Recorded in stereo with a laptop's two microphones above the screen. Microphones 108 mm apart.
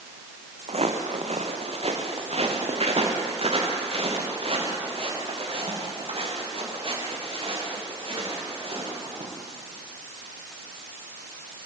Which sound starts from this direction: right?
Footsteps, at 0.7 s.